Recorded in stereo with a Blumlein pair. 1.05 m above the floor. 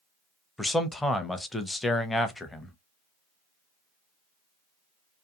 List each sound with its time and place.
0.6 s a man speaking: 5° left, 0.6 m